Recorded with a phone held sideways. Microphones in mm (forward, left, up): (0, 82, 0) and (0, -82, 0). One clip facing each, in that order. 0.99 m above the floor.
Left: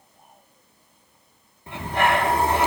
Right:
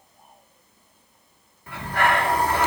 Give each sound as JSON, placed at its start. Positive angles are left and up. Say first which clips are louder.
{"t": 1.7, "sound": "breathing", "louder": "left 1 dB", "side_deg": 25, "distance_m": 1.9}